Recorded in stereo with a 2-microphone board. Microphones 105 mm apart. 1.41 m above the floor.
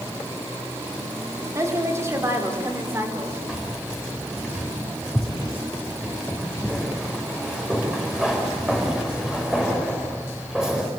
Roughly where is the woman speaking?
Right.